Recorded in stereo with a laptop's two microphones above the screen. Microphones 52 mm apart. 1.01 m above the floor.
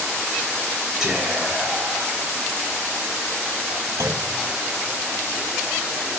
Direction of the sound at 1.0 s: 15° right (ahead or behind).